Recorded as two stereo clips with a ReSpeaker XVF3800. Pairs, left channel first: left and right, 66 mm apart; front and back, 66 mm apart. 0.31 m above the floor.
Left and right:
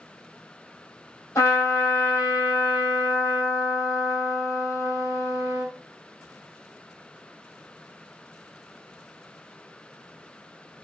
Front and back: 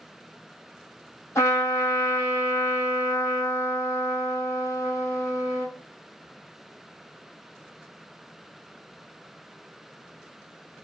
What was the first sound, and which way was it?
A trumpet, 50° left.